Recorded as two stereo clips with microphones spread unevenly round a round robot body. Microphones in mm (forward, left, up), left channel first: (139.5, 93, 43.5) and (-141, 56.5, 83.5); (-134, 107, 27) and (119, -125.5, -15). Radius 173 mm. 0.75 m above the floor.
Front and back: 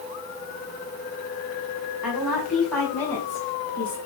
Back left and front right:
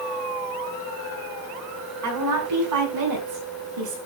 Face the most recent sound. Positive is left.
turn(degrees=-65)